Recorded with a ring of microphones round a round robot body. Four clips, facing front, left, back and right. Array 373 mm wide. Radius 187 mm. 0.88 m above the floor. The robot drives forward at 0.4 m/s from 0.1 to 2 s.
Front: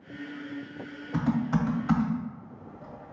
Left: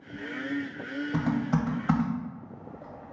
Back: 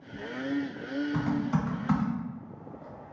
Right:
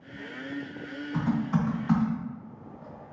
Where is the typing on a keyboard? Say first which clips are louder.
Right 1 dB, front 5 dB; 70° left, 1.4 m; by 3.1 s 85° left, 1.3 m.